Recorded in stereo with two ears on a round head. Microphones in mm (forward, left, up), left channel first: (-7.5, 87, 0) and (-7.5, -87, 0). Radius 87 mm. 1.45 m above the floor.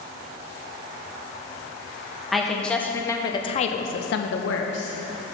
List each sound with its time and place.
2.3 s a woman speaking: centre (ahead or behind), 1.4 m; by 5.0 s 60° left (ahead or behind), 1.0 m